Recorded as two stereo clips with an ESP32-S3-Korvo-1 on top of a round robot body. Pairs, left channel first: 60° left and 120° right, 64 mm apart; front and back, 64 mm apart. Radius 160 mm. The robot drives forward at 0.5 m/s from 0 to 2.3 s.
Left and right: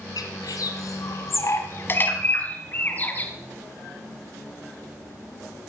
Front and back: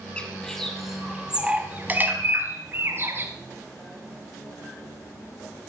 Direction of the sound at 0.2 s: 75° left.